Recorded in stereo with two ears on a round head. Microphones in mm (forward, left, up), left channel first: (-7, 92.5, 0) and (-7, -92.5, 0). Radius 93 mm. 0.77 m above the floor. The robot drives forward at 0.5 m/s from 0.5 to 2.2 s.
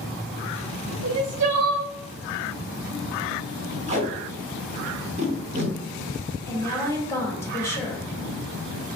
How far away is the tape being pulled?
About 0.9 m.